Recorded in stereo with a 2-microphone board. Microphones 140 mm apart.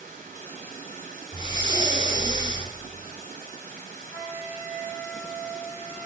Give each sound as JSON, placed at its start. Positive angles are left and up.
{"t": 0.0, "sound": "running water", "side_deg": -80, "distance_m": 2.5}
{"t": 1.3, "sound": "breathing", "side_deg": 35, "distance_m": 1.1}
{"t": 4.1, "sound": "a flute", "side_deg": -20, "distance_m": 1.4}